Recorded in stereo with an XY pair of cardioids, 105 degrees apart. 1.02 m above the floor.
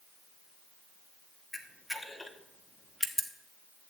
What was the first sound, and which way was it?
A camera shutter, 5° left.